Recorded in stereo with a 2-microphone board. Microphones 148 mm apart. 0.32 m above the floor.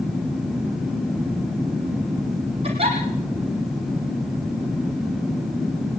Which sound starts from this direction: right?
A giggle, at 2.6 s.